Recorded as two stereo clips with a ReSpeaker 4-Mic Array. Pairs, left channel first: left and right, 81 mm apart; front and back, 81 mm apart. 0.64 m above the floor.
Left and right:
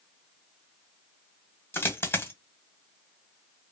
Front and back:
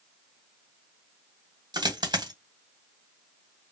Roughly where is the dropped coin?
Behind left.